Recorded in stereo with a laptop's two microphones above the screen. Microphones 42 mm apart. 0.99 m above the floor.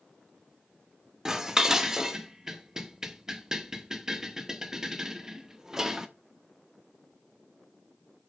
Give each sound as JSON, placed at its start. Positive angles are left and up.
{"t": 1.2, "sound": "dishes clattering", "side_deg": -10, "distance_m": 0.6}